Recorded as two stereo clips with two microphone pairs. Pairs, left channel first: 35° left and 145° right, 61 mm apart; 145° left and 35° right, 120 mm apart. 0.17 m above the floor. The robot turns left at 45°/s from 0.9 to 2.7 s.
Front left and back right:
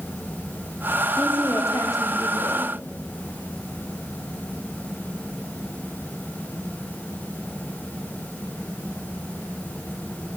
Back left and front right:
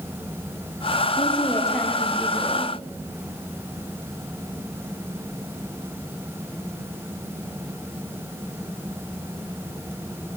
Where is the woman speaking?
100° left, 8 m; by 2.7 s 30° left, 8 m.